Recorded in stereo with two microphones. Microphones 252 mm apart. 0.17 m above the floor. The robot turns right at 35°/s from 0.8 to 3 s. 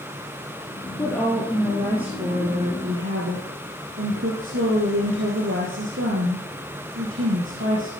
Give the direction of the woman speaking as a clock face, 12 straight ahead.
6 o'clock.